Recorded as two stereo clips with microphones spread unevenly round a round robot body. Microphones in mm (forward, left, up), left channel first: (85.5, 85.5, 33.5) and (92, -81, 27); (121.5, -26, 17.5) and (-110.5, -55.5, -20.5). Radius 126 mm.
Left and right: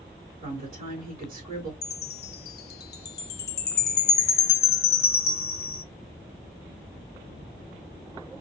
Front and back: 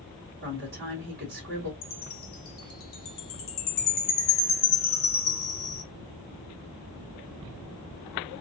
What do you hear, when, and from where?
0.4 s a woman speaking: 150° right, 1.8 m
1.8 s a chime: 65° left, 0.6 m